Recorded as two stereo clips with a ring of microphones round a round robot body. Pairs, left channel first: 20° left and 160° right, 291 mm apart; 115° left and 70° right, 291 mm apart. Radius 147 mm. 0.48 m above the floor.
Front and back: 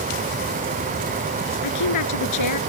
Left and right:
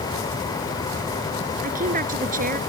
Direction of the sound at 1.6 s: 5° right.